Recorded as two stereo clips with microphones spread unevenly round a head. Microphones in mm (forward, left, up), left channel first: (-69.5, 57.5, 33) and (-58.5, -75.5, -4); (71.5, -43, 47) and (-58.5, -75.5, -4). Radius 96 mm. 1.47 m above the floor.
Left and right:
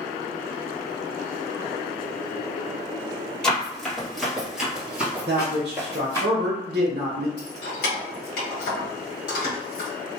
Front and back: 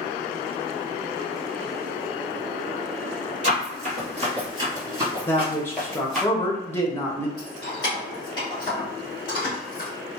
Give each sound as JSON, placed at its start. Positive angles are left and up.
{"t": 3.4, "sound": "running footsteps", "azimuth_deg": 150, "distance_m": 1.7}
{"t": 5.3, "sound": "a man speaking", "azimuth_deg": -55, "distance_m": 1.1}
{"t": 7.4, "sound": "keys jangling", "azimuth_deg": 80, "distance_m": 1.4}